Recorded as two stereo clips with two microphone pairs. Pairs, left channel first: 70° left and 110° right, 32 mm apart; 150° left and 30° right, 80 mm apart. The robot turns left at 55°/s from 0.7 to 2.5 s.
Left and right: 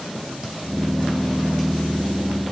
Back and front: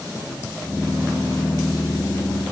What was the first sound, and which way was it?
Only background noise.